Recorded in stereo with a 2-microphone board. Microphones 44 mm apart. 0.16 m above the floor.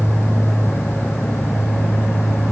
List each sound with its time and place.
Only background noise.